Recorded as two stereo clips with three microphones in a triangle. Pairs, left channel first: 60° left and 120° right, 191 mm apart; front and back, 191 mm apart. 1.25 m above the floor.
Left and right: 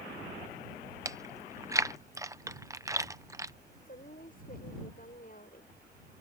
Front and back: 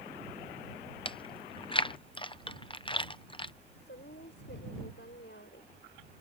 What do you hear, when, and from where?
1.1 s chewing: 50° right
3.9 s a woman speaking: 20° left